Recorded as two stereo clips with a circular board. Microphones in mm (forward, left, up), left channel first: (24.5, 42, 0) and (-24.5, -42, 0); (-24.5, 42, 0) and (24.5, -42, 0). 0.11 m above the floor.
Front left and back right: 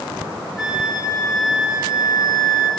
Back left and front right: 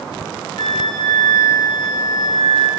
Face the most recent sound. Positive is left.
turn(degrees=160)